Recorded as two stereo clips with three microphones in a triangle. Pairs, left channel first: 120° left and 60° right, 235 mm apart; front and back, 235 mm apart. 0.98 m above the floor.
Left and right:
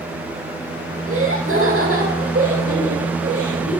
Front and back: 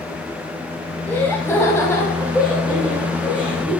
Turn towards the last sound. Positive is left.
turn(degrees=-70)